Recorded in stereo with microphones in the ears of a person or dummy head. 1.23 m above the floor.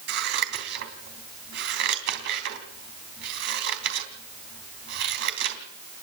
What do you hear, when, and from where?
0.1 s scissors: 65° right (ahead or behind), 3 m